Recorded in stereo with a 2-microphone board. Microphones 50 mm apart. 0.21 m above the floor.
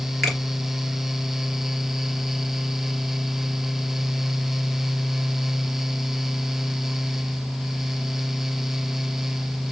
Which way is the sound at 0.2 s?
5° left (ahead or behind).